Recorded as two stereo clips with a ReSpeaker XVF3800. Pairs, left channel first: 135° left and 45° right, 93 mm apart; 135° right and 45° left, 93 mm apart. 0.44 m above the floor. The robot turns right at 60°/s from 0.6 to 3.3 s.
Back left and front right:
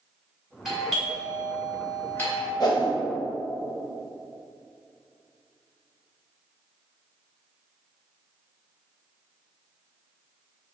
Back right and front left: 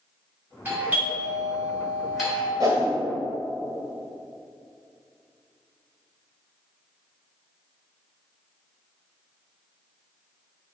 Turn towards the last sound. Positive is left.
turn(degrees=135)